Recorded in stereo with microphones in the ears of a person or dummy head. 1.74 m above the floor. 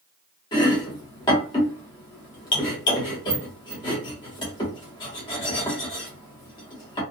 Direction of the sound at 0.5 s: 25° left (ahead or behind).